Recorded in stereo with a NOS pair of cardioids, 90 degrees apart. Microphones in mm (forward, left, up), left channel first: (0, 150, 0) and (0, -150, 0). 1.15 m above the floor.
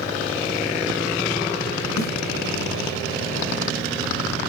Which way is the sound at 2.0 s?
65° left.